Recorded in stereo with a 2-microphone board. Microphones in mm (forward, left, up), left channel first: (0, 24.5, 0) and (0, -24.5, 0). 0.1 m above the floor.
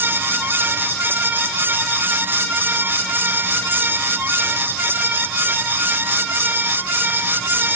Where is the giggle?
I don't hear a giggle.